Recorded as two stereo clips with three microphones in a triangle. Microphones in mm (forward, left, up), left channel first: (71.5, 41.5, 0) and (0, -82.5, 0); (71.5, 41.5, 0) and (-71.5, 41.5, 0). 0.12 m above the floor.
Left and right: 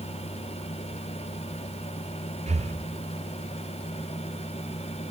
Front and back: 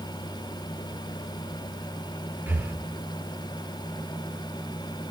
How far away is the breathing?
About 0.9 m.